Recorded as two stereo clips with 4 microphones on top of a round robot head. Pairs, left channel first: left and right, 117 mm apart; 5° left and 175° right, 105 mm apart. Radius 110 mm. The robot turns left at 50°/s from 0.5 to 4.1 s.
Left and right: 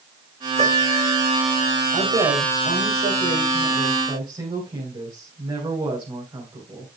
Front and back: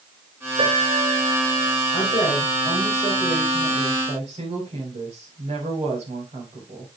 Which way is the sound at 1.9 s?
40° right.